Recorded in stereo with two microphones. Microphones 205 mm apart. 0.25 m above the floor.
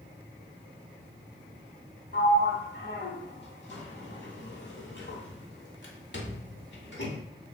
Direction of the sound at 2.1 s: 60° left (ahead or behind).